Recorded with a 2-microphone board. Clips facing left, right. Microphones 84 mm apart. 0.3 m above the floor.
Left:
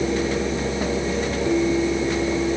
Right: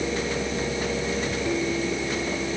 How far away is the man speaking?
I don't hear a man speaking.